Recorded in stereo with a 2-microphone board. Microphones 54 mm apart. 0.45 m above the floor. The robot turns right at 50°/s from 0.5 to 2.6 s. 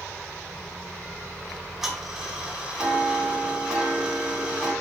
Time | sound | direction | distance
1.5 | ticking | centre (ahead or behind) | 0.6 m